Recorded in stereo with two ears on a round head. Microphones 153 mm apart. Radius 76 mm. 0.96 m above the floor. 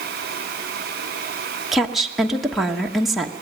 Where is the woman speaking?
Centre (ahead or behind), 1.3 m.